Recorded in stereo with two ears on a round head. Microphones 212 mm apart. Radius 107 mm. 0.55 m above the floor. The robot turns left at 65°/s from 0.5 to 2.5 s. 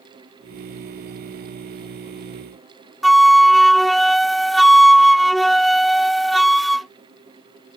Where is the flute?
Centre (ahead or behind).